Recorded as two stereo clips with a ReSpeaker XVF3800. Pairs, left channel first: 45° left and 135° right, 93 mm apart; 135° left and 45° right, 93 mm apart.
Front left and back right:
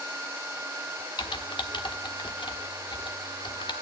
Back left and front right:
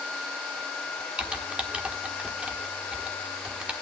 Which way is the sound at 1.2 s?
30° left.